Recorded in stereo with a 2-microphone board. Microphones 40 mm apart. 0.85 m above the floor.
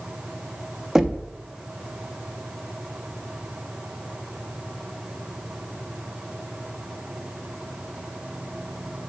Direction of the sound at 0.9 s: 10° right (ahead or behind).